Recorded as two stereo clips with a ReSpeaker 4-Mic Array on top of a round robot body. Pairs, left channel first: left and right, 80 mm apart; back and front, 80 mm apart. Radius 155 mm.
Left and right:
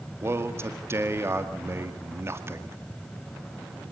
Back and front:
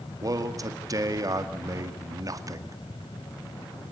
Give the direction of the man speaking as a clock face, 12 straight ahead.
1 o'clock.